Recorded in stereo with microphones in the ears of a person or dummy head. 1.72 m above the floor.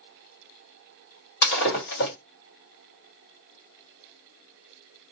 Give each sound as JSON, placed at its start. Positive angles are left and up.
{"t": 1.4, "sound": "breaking glass", "side_deg": 60, "distance_m": 2.0}